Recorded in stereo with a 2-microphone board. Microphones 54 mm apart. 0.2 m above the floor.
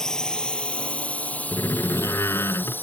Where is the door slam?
55° left (ahead or behind).